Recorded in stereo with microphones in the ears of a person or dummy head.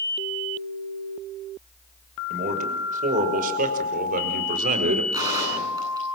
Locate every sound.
2.3 s a man speaking: 50° right (ahead or behind), 5.5 m; by 5.0 s 55° right (ahead or behind), 4 m
5.1 s a gunshot: 15° right (ahead or behind), 9.5 m